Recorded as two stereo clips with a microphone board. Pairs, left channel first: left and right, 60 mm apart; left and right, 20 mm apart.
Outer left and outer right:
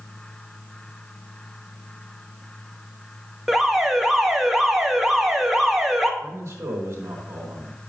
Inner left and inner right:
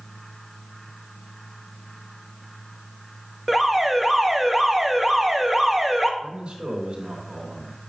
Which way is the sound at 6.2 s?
45° right (ahead or behind).